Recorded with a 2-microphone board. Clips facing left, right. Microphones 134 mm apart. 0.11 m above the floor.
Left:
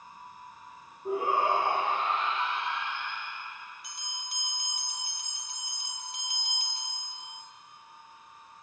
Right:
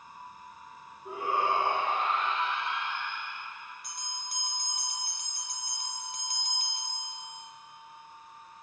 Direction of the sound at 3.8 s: 50° right (ahead or behind).